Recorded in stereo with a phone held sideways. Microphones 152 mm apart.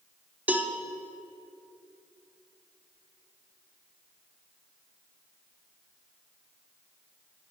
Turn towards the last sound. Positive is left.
turn(degrees=-15)  # may be behind; listen again after turning